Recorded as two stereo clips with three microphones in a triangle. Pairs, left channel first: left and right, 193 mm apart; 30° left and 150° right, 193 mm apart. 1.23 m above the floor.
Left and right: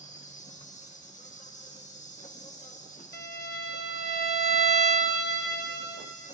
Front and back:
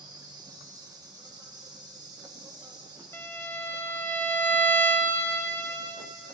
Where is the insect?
140° left, 1.4 m.